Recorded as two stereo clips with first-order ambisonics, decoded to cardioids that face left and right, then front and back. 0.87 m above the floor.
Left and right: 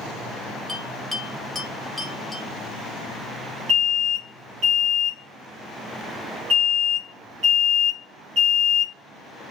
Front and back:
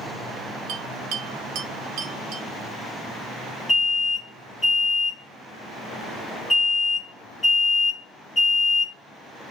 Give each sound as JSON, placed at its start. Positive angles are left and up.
{"t": 0.7, "sound": "a bell", "azimuth_deg": 180, "distance_m": 0.5}
{"t": 3.7, "sound": "an alarm", "azimuth_deg": -70, "distance_m": 1.4}